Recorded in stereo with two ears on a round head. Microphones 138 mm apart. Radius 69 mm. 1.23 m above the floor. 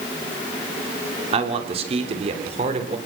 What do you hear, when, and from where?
1.3 s a man speaking: 40° right (ahead or behind), 4 m; by 3.0 s 45° right (ahead or behind), 5 m